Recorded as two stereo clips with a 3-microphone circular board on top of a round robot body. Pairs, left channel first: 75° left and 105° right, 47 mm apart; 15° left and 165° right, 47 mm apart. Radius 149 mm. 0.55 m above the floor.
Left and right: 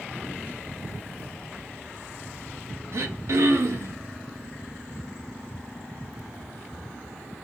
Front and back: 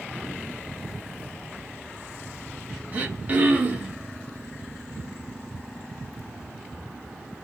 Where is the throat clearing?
105° right, 1.4 m.